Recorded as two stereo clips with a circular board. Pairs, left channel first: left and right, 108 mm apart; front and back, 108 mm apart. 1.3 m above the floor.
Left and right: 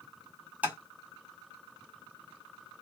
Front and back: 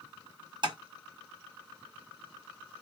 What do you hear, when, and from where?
0.6 s tapping: 165° right, 1.2 m